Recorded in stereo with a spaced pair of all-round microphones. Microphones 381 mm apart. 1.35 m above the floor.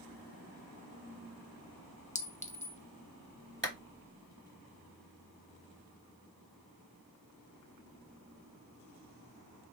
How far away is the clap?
About 1.3 m.